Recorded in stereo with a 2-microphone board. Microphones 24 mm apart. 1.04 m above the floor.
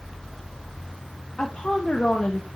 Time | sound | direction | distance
1.4 | a woman speaking | 60° left (ahead or behind) | 1.3 m